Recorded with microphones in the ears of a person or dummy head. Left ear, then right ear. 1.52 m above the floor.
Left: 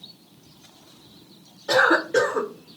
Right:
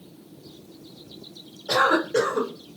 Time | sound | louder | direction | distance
1.7 | a cough | left 2 dB | 75° left (ahead or behind) | 1.2 m